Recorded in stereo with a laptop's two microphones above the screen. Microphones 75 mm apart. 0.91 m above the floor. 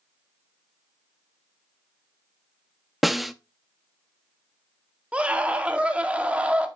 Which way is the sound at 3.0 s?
Centre (ahead or behind).